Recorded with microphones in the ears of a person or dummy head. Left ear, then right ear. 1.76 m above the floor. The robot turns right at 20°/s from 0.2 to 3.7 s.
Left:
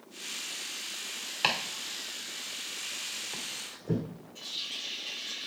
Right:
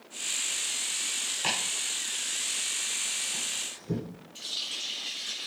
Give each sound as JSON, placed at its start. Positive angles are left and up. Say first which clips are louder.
{"t": 1.4, "sound": "chopping", "louder": "left 2 dB", "side_deg": 35, "distance_m": 2.0}
{"t": 4.3, "sound": "a running tap", "louder": "right 3 dB", "side_deg": -30, "distance_m": 3.0}